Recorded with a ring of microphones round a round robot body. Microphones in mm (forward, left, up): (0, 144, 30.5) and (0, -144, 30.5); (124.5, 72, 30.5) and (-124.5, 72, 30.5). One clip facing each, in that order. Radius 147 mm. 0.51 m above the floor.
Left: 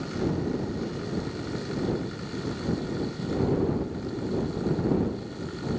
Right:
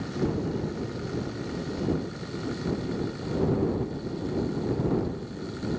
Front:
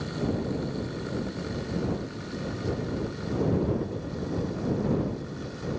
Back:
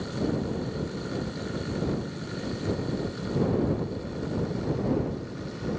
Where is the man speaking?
No man speaking in this recording.